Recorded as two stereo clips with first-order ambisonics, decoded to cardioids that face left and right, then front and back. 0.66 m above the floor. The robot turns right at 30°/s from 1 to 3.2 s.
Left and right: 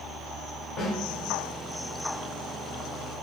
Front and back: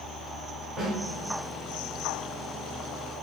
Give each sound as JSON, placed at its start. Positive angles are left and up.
{"t": 0.8, "sound": "a snare drum", "azimuth_deg": 130, "distance_m": 1.3}